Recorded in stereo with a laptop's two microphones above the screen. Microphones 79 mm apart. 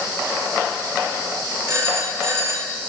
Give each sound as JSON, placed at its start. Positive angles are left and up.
{"t": 1.7, "sound": "a phone ringing", "side_deg": -35, "distance_m": 1.6}